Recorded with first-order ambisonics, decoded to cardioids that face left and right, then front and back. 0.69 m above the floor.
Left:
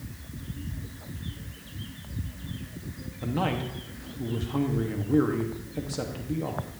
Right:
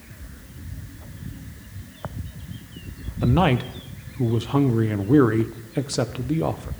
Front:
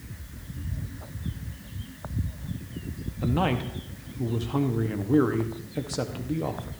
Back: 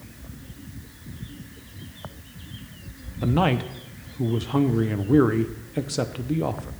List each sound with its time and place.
3.2 s a man speaking: 110° right, 0.5 m